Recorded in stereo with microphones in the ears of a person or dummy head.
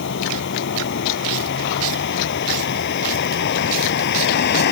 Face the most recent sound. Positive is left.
turn(degrees=60)  # may be behind; listen again after turning